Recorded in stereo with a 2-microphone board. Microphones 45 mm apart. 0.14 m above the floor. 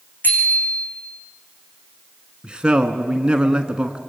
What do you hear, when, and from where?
0.2 s a bicycle bell: 40° left (ahead or behind), 6.5 m
2.4 s a man speaking: 20° right (ahead or behind), 1.1 m